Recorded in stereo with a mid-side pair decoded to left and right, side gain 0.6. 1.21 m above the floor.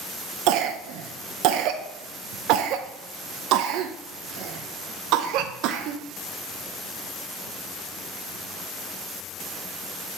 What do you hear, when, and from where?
0.5 s a cough: 65° right, 0.5 m